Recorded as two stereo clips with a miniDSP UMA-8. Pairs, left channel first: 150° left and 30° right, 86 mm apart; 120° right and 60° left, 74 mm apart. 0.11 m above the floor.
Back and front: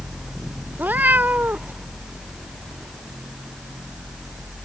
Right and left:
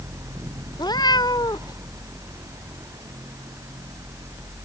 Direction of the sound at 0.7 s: 100° right.